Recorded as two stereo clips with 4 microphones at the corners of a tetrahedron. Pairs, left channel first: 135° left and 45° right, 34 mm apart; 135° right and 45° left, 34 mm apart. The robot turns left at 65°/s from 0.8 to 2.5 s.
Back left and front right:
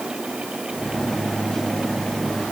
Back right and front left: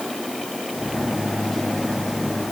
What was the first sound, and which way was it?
Only background noise.